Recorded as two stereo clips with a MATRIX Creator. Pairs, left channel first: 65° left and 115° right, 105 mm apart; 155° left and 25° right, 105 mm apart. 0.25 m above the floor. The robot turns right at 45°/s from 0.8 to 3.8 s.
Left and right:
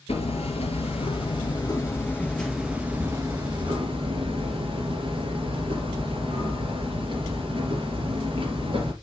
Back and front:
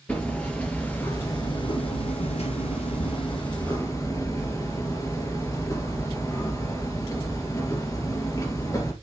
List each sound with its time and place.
0.1 s hammering: 80° left, 2.5 m; by 8.9 s 145° right, 2.5 m